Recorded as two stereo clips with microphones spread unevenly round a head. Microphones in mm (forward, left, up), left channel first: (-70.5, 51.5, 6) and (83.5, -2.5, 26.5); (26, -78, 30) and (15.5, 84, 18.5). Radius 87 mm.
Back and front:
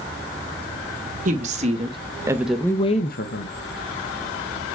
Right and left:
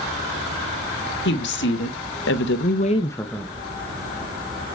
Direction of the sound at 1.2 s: 70° right.